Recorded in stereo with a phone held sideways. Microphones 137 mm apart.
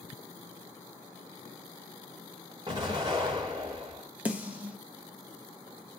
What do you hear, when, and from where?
2.7 s an explosion: 30° right (ahead or behind), 1.1 m
4.2 s a snare drum: 10° right (ahead or behind), 0.6 m